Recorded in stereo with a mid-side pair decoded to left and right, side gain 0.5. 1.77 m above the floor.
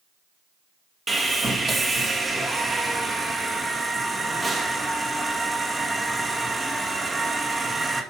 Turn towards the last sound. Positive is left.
turn(degrees=-25)